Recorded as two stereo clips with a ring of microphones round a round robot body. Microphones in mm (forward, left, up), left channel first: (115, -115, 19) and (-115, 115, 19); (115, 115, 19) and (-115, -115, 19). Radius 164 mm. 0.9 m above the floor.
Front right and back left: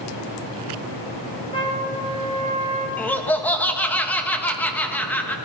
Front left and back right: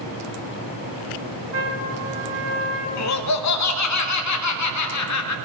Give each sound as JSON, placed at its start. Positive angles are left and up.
{"t": 1.5, "sound": "a trumpet", "azimuth_deg": -120, "distance_m": 1.6}
{"t": 3.0, "sound": "laughter", "azimuth_deg": 40, "distance_m": 1.2}